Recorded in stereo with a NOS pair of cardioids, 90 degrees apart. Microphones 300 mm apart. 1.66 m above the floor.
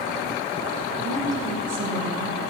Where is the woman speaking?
65° right, 1.8 m.